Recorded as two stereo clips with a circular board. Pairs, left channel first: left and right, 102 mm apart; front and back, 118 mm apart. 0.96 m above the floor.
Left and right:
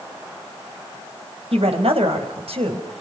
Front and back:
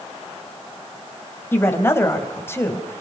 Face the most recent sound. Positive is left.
turn(degrees=-70)